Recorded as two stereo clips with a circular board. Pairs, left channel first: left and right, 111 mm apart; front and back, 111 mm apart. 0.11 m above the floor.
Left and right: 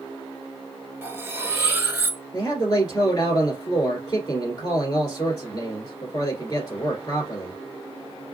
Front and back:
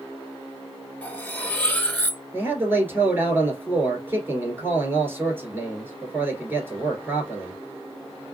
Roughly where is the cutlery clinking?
Ahead right.